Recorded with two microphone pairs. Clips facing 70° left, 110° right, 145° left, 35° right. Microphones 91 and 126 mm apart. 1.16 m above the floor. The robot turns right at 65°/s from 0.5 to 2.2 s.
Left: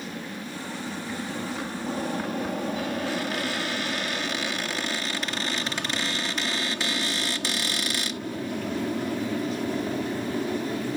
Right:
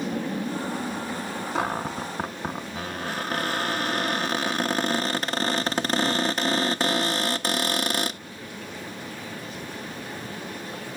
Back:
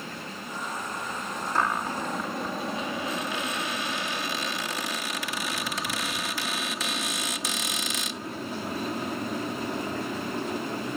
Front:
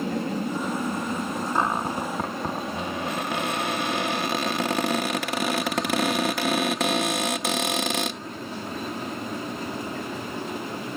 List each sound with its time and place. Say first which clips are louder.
0.0 s an aircraft: right 7 dB, front 12 dB; 55° right; by 11.0 s 65° left
1.6 s a cupboard door: right 3 dB, front 1 dB; 105° right; by 8.2 s 65° right